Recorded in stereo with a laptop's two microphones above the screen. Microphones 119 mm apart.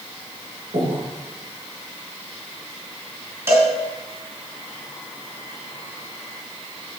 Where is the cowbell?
20° right (ahead or behind), 3 m.